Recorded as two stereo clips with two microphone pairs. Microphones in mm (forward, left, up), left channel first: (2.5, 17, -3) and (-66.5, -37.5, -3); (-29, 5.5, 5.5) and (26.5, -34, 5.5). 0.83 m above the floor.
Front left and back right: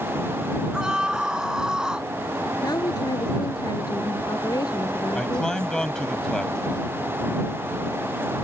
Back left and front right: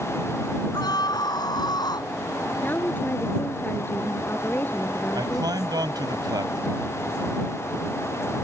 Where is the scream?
135° left.